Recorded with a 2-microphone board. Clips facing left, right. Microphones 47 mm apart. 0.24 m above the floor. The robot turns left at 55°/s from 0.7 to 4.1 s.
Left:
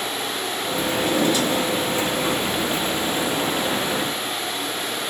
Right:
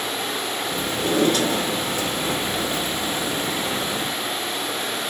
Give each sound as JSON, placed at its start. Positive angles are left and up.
{"t": 0.9, "sound": "a drawer", "azimuth_deg": -25, "distance_m": 2.0}